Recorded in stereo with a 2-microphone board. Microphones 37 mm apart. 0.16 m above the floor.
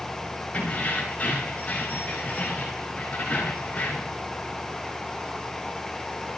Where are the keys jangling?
40° left (ahead or behind), 7 m.